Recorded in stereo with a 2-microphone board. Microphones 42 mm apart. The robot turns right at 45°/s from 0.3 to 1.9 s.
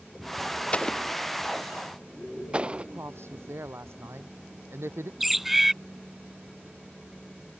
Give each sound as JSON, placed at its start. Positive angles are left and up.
{"t": 0.7, "sound": "an explosion", "side_deg": 25}
{"t": 2.8, "sound": "a woman speaking", "side_deg": -80}
{"t": 5.2, "sound": "a bird", "side_deg": -5}